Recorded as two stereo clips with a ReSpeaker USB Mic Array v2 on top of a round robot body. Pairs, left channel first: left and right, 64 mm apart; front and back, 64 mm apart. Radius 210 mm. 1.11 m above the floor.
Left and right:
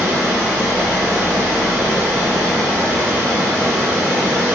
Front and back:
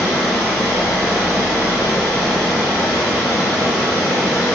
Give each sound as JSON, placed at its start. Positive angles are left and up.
{"t": 0.0, "sound": "running water", "azimuth_deg": -30, "distance_m": 1.1}